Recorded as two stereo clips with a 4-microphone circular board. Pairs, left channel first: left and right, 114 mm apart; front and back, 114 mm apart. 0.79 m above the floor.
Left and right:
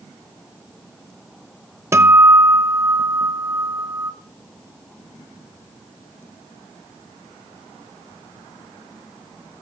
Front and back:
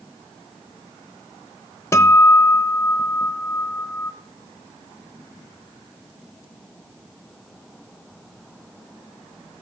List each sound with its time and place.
1.9 s a guitar: 40° right, 0.6 m